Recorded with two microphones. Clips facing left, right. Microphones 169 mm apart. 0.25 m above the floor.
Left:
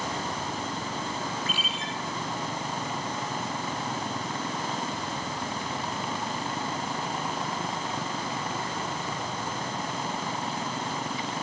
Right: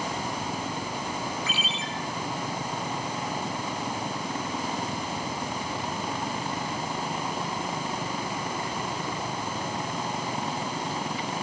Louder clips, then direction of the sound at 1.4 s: Right 1 dB; 50° left (ahead or behind).